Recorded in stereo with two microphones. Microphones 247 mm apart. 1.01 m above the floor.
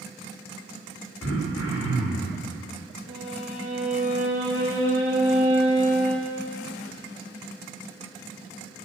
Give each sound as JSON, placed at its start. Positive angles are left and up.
{"t": 1.2, "sound": "throat clearing", "side_deg": 75, "distance_m": 2.5}
{"t": 3.1, "sound": "a violin", "side_deg": -50, "distance_m": 4.0}